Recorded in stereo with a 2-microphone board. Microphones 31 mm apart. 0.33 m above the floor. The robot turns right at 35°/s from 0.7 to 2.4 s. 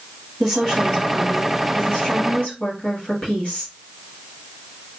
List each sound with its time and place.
0.4 s a woman speaking: 5° left, 1.5 m; by 3.7 s 60° left, 1.5 m